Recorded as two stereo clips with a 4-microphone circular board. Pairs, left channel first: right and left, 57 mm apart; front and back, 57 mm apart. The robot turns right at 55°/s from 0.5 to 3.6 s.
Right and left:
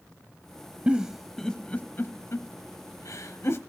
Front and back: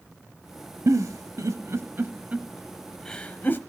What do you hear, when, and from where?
0.9 s a giggle: 160° left, 0.8 m; by 3.6 s 50° right, 0.8 m